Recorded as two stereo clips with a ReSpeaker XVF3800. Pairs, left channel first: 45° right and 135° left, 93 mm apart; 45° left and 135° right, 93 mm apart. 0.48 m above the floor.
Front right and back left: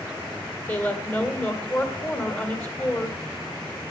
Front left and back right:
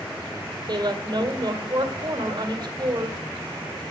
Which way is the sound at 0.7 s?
100° right.